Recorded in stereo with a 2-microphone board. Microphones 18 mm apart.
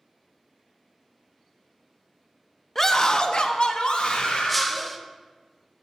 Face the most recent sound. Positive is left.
turn(degrees=5)  # may be behind; listen again after turning